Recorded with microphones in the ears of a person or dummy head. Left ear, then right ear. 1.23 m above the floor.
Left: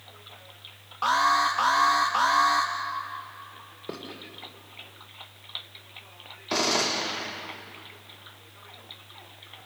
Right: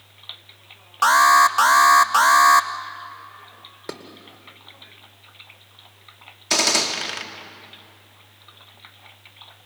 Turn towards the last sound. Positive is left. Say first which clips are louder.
# right 5 dB
turn(degrees=-75)  # may be behind; listen again after turning